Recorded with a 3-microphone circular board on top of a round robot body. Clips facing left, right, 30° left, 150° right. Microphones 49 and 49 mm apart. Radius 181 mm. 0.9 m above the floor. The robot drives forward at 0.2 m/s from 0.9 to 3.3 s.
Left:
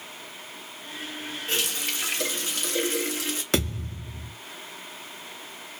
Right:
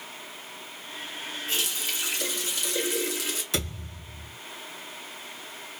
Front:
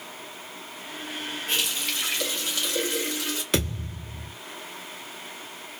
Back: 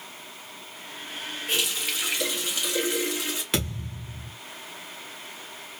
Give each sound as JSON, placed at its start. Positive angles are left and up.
{"t": 1.5, "sound": "a running tap", "azimuth_deg": 125, "distance_m": 1.0}
{"t": 3.5, "sound": "a thud", "azimuth_deg": 120, "distance_m": 0.8}